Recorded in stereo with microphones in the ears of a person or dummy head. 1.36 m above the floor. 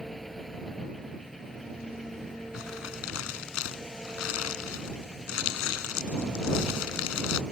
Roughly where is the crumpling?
Left.